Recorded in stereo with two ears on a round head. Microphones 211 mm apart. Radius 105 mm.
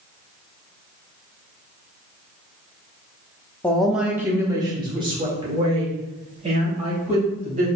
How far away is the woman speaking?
About 0.7 m.